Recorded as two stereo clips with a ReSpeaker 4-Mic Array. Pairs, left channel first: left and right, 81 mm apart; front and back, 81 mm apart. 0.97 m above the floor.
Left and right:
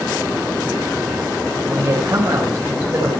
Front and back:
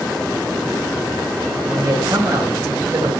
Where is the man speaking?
155° right, 4.5 m.